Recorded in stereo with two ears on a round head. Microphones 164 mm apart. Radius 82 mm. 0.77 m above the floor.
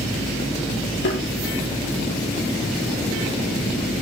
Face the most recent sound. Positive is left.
turn(degrees=75)  # may be behind; listen again after turning